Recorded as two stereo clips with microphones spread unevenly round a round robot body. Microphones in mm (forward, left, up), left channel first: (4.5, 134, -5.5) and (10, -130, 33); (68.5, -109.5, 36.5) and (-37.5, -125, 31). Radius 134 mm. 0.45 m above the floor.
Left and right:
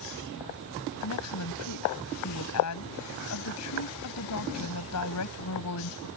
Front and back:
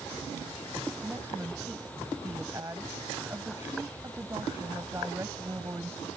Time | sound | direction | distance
1.0 | a woman speaking | 110° left | ?